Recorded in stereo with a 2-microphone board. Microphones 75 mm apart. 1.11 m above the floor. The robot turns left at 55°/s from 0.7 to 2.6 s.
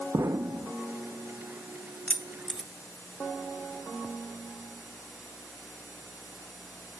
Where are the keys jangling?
15° left (ahead or behind), 0.5 m; by 2.7 s 5° right (ahead or behind), 0.5 m.